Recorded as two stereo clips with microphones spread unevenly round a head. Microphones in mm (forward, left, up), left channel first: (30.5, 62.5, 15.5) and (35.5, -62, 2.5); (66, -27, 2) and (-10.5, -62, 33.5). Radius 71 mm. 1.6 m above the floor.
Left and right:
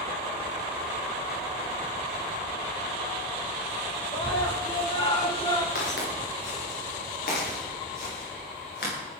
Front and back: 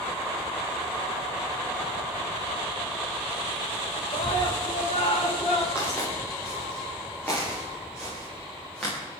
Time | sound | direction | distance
4.1 | a scream | 50° left | 4.5 m
5.8 | footsteps | 105° left | 9.5 m